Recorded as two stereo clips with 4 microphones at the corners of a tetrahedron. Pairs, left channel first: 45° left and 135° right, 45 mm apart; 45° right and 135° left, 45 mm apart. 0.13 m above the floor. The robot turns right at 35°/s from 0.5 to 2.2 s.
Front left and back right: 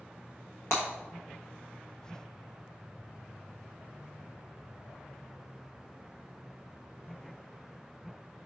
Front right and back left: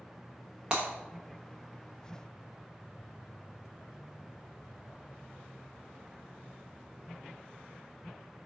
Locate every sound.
0.7 s breaking glass: 65° left, 1.1 m; by 0.8 s 70° left, 1.1 m